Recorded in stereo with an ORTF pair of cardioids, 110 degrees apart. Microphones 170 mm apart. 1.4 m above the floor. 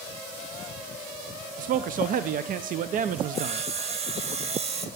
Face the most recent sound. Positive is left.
turn(degrees=-40)